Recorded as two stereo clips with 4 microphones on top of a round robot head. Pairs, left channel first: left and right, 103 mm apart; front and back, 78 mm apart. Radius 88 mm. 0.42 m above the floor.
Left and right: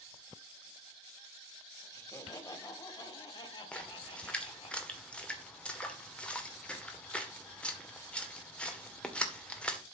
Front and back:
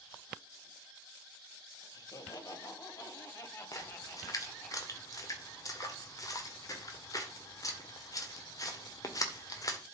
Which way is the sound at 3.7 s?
15° left.